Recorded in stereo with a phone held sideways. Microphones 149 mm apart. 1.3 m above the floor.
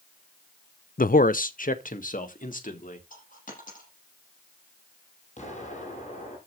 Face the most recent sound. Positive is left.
turn(degrees=55)  # may be behind; listen again after turning